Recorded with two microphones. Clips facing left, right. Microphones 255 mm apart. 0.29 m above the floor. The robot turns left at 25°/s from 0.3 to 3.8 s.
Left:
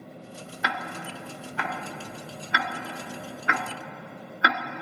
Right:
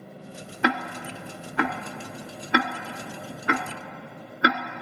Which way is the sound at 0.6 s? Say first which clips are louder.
Right 9 dB; 70° right (ahead or behind).